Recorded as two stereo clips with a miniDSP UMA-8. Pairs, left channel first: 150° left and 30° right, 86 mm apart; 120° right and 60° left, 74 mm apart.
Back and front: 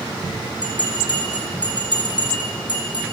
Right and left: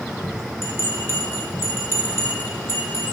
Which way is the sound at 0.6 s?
175° right.